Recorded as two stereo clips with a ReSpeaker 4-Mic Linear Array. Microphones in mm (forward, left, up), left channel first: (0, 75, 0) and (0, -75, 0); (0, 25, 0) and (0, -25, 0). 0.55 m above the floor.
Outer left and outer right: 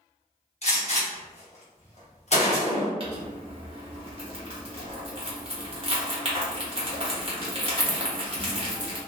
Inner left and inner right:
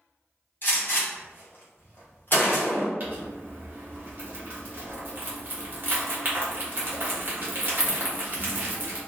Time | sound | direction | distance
0.6 | a gunshot | 45° left (ahead or behind) | 1.0 m
3.0 | crumpling | 40° right (ahead or behind) | 1.0 m